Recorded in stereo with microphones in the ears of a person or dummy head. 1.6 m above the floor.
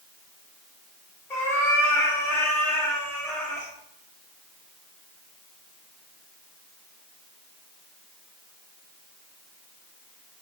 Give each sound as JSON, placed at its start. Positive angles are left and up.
{"t": 1.3, "sound": "a cat meowing", "side_deg": 15, "distance_m": 0.8}